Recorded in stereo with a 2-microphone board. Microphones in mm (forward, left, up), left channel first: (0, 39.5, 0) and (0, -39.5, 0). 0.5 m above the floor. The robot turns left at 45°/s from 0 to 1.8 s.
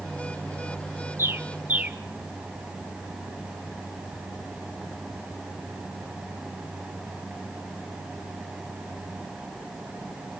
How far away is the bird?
About 1.3 m.